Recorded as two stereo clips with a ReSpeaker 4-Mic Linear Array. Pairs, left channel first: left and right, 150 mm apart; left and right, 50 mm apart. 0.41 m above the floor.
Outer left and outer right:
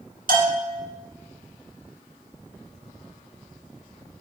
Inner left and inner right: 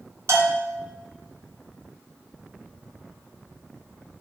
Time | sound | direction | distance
0.3 | a bell | 80° right | 1.9 m